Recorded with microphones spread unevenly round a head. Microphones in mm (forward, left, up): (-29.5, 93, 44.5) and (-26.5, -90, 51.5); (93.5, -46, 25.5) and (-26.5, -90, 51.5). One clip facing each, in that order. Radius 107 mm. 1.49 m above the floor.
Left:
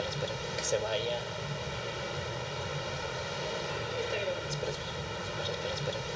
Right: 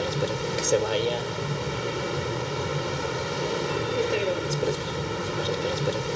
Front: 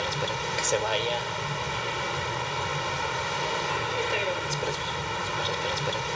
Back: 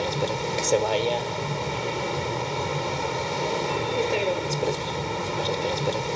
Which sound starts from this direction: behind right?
A vehicle, at 0.0 s.